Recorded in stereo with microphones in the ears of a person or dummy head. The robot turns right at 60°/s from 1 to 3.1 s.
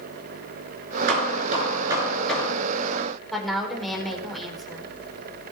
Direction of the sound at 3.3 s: Centre (ahead or behind).